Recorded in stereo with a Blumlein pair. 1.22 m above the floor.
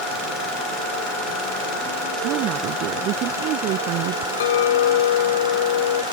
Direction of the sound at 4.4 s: 60° left.